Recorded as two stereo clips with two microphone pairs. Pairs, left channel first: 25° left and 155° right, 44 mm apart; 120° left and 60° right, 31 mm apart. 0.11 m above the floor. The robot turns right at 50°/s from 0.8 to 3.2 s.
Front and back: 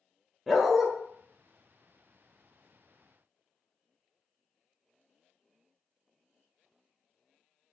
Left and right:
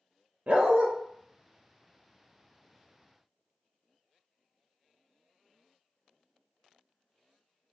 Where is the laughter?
I don't hear laughter.